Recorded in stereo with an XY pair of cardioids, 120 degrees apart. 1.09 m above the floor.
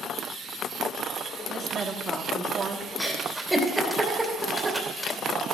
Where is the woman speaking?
40° right, 2 m.